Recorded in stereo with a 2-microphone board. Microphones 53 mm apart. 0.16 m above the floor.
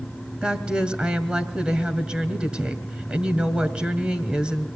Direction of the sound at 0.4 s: 20° right (ahead or behind).